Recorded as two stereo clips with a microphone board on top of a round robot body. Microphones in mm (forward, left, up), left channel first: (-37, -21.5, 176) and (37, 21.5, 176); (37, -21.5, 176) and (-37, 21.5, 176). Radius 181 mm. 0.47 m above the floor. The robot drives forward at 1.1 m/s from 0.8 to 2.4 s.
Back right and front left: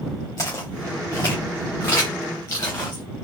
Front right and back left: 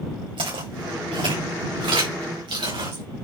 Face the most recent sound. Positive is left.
turn(degrees=145)